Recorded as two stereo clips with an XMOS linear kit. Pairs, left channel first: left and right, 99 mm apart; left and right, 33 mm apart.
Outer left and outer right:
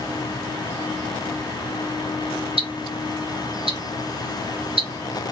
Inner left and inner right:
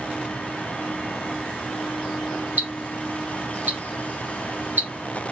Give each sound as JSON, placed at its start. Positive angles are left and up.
{"t": 2.6, "sound": "ticking", "side_deg": -65, "distance_m": 1.3}